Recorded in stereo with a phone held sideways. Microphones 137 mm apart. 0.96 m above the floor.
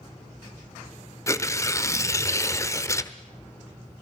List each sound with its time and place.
1.3 s tearing paper: 20° left (ahead or behind), 1.1 m